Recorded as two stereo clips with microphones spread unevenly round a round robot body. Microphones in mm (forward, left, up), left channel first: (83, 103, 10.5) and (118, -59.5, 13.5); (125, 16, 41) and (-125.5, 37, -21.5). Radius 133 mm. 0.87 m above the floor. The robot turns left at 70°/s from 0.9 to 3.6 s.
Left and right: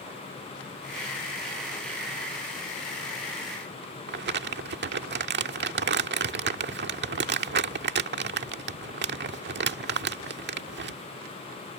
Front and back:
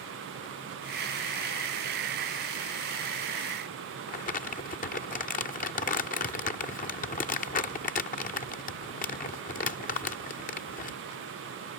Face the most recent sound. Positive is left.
turn(degrees=-70)